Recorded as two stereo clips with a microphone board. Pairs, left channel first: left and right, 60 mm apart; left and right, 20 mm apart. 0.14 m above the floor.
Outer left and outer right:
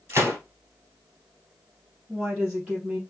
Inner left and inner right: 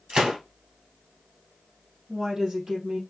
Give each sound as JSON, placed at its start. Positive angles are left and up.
{"t": 0.1, "sound": "a gunshot", "side_deg": -45, "distance_m": 2.0}
{"t": 2.1, "sound": "a woman speaking", "side_deg": -15, "distance_m": 2.5}